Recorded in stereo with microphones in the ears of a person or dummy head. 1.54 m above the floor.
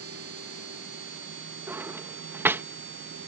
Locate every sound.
0.0 s a machine running: 60° right (ahead or behind)
1.7 s a drawer: 10° right (ahead or behind)